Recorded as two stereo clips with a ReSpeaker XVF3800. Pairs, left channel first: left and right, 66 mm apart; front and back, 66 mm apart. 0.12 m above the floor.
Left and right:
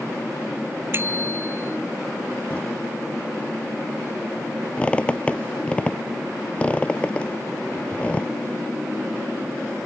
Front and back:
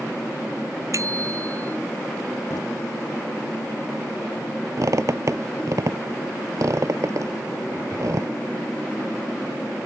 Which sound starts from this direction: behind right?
A bicycle bell, at 0.9 s.